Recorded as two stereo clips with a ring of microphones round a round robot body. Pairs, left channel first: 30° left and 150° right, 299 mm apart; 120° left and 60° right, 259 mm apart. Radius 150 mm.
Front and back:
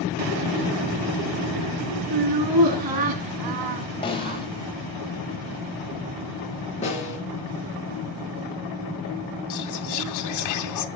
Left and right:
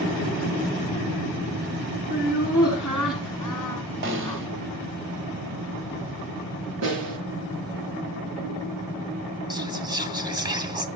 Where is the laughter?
145° right, 3.5 m; by 4.4 s 165° right, 1.7 m.